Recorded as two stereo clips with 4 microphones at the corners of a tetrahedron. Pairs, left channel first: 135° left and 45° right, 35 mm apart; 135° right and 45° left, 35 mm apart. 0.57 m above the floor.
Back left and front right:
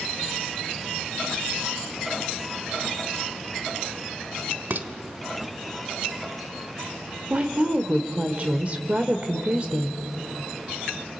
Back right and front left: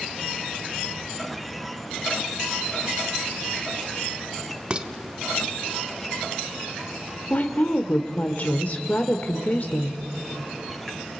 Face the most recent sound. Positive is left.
turn(degrees=-100)